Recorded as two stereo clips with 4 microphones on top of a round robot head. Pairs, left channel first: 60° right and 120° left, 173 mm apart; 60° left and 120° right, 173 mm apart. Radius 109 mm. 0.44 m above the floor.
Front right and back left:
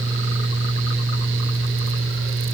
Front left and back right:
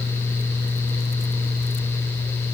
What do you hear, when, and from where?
Only background noise.